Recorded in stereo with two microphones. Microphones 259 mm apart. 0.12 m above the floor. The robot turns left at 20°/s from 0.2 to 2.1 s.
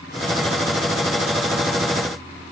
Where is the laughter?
I don't hear laughter.